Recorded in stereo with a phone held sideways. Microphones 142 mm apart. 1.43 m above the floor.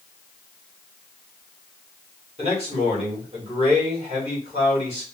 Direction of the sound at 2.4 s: 45° right (ahead or behind).